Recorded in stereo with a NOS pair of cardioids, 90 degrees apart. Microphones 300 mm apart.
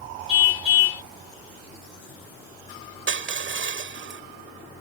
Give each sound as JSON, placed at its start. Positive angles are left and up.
{"t": 0.3, "sound": "a car horn", "azimuth_deg": 50}
{"t": 3.1, "sound": "crushing", "azimuth_deg": -45}